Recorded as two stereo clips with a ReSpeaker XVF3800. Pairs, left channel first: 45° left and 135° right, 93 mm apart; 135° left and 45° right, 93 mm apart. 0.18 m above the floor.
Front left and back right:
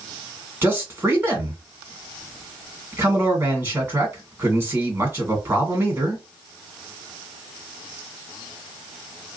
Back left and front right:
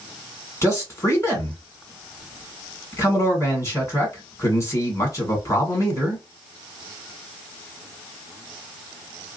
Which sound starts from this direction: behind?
A man speaking, at 0.6 s.